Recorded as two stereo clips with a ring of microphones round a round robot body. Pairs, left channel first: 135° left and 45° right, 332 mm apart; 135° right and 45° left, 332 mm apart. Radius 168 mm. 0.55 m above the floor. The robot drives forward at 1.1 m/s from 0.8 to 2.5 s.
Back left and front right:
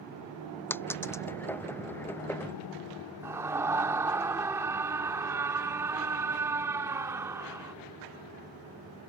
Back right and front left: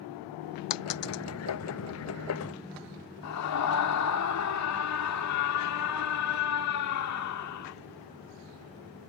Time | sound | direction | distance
0.7 | a dropped coin | 140° right | ?
3.2 | a scream | 125° right | ?